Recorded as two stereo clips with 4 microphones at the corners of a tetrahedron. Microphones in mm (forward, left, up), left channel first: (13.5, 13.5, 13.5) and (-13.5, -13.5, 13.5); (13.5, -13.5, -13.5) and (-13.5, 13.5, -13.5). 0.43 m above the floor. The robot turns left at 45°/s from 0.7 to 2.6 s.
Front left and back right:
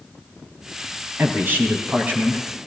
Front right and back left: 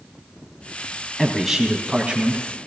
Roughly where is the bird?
I don't hear a bird.